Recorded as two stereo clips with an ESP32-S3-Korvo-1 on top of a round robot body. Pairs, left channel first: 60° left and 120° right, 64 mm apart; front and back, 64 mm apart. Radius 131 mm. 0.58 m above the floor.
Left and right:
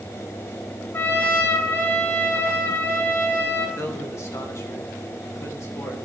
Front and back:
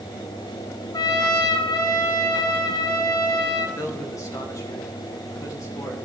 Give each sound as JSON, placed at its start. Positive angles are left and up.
{"t": 0.9, "sound": "a trumpet", "azimuth_deg": 5, "distance_m": 1.7}
{"t": 3.8, "sound": "a man speaking", "azimuth_deg": 25, "distance_m": 3.0}